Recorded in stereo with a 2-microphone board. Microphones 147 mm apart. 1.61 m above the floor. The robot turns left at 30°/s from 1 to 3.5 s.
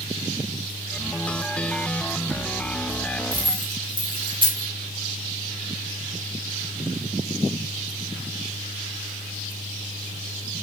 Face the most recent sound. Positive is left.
turn(degrees=-35)  # may be behind; listen again after turning